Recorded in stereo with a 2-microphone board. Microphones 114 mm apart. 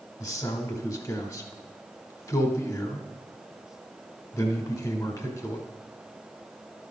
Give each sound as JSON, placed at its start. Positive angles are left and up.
{"t": 0.2, "sound": "a man speaking", "side_deg": 30, "distance_m": 1.2}